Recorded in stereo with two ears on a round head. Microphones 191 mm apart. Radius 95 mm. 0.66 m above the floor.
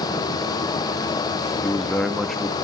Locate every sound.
1.6 s a man speaking: centre (ahead or behind), 1.1 m